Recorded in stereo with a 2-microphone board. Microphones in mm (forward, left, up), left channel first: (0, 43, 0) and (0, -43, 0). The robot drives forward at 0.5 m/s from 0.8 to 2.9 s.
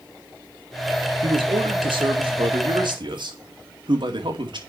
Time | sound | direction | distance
1.2 | a man speaking | 85° right | 2 m